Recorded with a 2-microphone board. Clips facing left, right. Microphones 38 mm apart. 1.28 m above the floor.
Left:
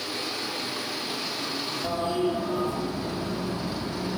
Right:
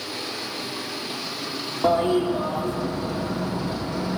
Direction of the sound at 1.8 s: 65° right (ahead or behind).